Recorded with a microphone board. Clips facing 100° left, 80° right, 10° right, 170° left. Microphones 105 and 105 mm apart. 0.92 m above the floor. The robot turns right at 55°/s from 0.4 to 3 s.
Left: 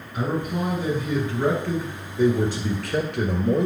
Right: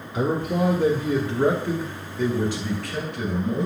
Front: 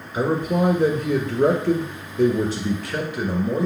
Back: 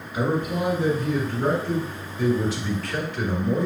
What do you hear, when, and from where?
0.1 s a man speaking: 75° right, 1.5 m; by 3.7 s 70° left, 1.5 m